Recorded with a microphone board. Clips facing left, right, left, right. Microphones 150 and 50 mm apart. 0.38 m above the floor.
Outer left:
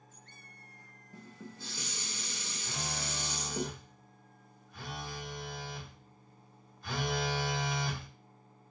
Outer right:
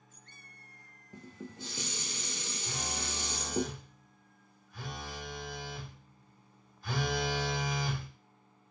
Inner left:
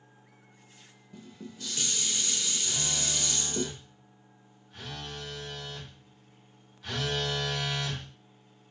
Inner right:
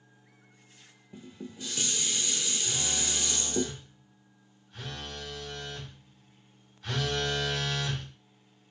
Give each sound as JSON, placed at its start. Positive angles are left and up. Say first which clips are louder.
{"t": 1.1, "sound": "dishes clattering", "louder": "outer right 3 dB, inner right 2 dB", "side_deg": -20, "distance_m": 0.6}
{"t": 2.7, "sound": "a phone buzzing", "louder": "even, inner right 1 dB", "side_deg": 0, "distance_m": 1.2}